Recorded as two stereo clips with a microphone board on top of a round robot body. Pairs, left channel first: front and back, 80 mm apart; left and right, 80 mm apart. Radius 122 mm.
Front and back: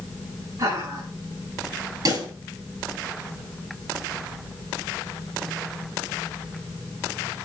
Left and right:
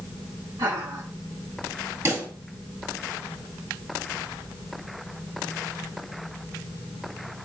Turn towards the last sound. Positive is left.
turn(degrees=-145)